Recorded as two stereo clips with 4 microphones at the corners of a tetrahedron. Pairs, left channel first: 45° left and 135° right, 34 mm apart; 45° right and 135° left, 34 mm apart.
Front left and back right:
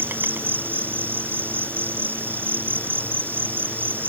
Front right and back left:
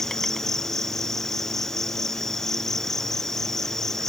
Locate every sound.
0.0 s an insect: 125° right